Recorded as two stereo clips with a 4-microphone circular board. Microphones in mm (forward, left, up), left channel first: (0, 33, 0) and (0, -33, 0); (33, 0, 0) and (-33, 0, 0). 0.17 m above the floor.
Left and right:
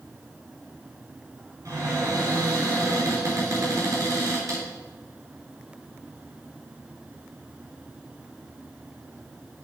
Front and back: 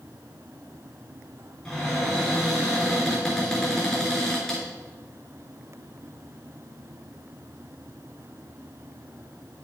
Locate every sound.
1.6 s a cupboard door: 80° right, 3 m